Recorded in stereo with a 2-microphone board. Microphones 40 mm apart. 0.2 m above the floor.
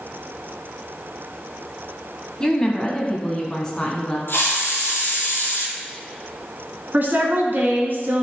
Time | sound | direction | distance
2.4 | a woman speaking | 15° left (ahead or behind) | 1.0 m
4.3 | a hiss | 75° left (ahead or behind) | 1.5 m
6.9 | a woman speaking | 55° right (ahead or behind) | 1.5 m